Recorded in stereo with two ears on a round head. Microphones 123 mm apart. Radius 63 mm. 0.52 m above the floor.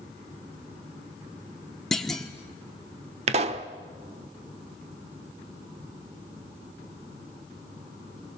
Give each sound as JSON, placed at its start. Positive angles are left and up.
{"t": 1.9, "sound": "a clunk", "side_deg": 5, "distance_m": 1.2}
{"t": 3.3, "sound": "a pop", "side_deg": -50, "distance_m": 1.0}